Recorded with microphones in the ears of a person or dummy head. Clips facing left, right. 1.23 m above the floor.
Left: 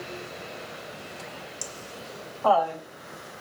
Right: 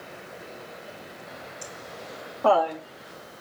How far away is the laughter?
About 0.8 m.